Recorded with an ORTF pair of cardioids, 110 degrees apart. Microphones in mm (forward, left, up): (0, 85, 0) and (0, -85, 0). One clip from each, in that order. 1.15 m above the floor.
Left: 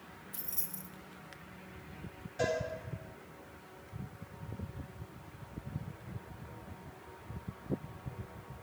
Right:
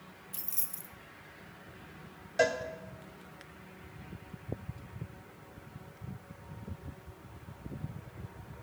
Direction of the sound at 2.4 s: 65° right.